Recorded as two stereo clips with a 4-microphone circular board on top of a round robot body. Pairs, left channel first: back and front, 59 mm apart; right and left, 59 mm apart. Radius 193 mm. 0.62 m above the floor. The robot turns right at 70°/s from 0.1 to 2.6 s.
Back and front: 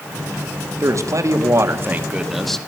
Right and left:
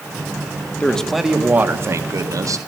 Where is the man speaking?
25° right, 1.9 m; by 2.6 s 100° left, 1.9 m.